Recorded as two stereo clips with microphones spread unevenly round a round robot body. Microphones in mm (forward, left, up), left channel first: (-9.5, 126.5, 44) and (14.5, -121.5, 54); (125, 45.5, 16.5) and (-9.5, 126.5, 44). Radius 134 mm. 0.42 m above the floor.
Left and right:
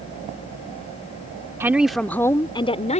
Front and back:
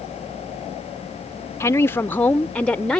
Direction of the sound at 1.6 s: 10° right.